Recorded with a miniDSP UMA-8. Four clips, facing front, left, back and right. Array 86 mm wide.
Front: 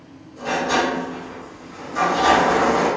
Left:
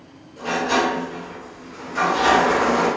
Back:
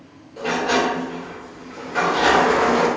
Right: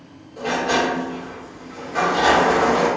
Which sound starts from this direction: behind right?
A sliding door, at 0.4 s.